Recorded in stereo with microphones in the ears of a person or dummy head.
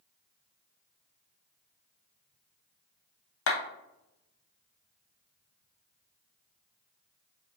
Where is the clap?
65° left (ahead or behind), 1.1 m.